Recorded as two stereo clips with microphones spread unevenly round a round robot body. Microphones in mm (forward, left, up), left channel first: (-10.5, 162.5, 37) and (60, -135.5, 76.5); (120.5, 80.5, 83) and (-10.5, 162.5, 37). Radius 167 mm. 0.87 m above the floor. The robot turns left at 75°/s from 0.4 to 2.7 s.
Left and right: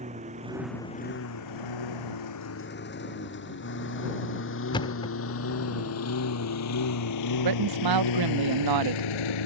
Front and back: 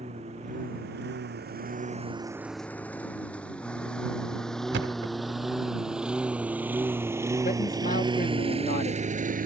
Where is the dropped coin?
No dropped coin in this recording.